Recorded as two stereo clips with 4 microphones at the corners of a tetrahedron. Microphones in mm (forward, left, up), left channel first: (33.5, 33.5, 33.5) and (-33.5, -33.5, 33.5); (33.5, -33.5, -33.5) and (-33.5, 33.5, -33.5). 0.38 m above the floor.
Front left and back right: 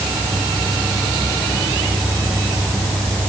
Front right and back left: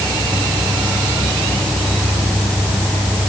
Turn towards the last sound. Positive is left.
No sound to turn to.